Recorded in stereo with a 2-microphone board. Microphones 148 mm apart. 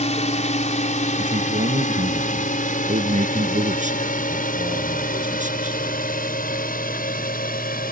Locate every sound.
0.0 s a drone: 50° left (ahead or behind); by 7.9 s 80° left
1.2 s a man speaking: 60° right (ahead or behind)